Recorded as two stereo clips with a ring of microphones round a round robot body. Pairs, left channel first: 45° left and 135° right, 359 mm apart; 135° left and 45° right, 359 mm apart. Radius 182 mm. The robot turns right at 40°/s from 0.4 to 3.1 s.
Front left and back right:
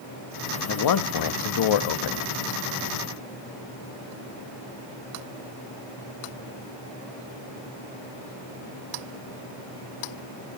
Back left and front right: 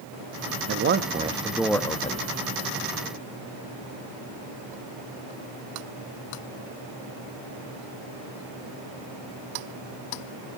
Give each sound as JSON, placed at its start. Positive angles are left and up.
{"t": 0.7, "sound": "a man speaking", "azimuth_deg": 5, "distance_m": 0.8}